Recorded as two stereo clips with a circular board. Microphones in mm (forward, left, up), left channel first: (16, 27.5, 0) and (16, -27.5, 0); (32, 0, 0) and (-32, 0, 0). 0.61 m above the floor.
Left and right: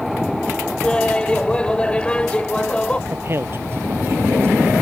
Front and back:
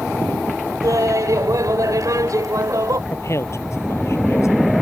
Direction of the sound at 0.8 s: 160° left.